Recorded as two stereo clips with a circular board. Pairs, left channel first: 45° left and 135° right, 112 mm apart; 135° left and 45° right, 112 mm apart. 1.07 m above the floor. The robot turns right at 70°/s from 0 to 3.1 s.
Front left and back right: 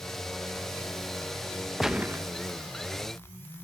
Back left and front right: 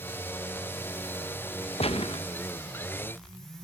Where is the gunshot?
135° left, 0.9 m; by 2.2 s 170° left, 0.9 m.